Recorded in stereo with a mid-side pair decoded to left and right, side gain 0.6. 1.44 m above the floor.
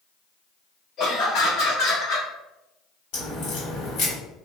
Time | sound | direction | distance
1.0 | laughter | 50° left | 1.5 m
3.1 | a crack | 70° left | 1.8 m